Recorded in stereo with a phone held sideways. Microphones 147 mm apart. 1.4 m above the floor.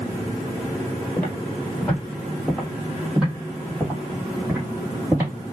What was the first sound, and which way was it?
Footsteps, 15° left (ahead or behind).